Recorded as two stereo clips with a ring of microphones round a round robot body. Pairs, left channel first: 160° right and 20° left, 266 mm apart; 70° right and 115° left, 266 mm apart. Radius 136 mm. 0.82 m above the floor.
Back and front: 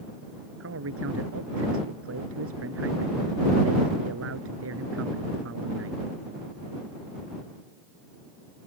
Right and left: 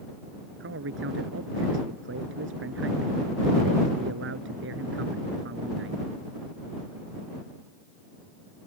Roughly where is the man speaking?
Ahead left.